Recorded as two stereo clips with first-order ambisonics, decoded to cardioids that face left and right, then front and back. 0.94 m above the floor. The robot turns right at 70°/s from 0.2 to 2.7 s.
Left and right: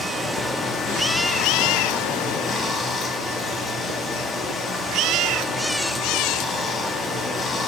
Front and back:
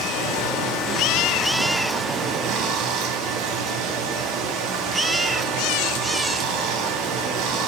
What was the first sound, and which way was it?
Running water, 15° right.